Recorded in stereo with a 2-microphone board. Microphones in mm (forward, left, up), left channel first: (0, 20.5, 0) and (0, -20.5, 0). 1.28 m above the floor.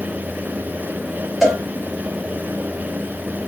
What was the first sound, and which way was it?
A cowbell, 5° right (ahead or behind).